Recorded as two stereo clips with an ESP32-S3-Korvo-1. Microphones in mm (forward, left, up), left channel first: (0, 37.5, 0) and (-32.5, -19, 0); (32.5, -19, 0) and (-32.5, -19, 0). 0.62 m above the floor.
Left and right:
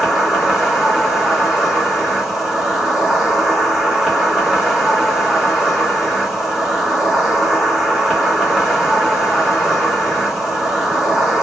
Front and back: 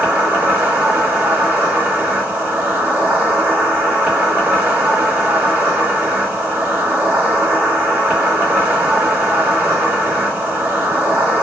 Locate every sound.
0.0 s an insect: straight behind, 1.6 m